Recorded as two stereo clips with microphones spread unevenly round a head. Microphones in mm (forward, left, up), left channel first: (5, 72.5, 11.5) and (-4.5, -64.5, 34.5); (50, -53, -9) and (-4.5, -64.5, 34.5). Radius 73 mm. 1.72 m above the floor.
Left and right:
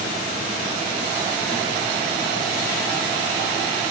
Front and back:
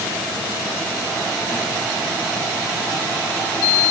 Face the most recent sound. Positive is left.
No sound to turn to.